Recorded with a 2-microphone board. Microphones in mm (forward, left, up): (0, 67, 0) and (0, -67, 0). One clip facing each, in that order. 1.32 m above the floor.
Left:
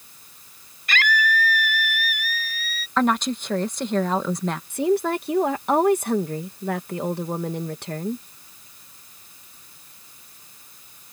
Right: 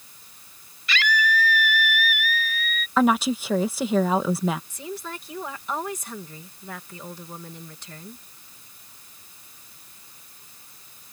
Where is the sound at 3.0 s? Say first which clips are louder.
Right 1 dB; 5° right (ahead or behind).